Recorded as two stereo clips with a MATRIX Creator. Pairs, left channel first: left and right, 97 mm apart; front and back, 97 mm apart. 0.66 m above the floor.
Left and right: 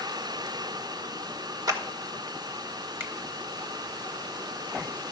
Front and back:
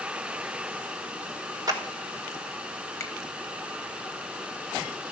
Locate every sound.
1.7 s a clap: 135° right, 1.4 m
3.0 s a finger snap: 35° right, 1.2 m